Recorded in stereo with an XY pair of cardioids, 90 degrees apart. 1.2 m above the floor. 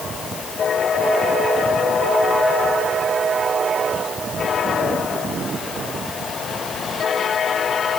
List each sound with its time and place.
Only background noise.